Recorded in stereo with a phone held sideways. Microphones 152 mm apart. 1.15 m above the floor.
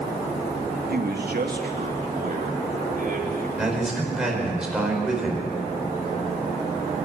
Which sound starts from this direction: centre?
A man speaking, at 3.6 s.